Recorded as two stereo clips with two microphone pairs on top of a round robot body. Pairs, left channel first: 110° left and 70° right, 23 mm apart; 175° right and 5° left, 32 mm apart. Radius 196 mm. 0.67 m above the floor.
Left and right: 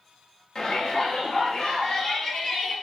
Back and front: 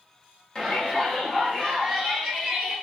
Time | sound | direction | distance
0.6 | a shout | 120° left | 1.0 m